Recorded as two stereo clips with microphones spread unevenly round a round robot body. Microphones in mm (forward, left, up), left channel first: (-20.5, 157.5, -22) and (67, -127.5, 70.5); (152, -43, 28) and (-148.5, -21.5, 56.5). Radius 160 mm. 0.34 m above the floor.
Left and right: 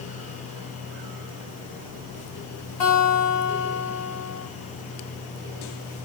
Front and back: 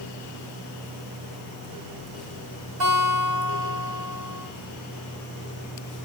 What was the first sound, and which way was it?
A guitar, 135° left.